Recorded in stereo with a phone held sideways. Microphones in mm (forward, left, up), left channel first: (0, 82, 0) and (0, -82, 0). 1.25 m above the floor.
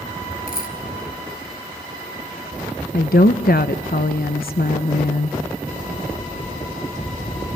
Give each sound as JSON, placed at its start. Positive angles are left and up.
{"t": 0.5, "sound": "a dropped coin", "side_deg": 65, "distance_m": 3.5}
{"t": 2.9, "sound": "a woman speaking", "side_deg": 75, "distance_m": 1.0}